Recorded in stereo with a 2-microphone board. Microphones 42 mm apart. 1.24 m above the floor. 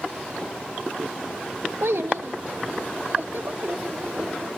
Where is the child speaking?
75° right (ahead or behind); by 4.5 s 50° right (ahead or behind).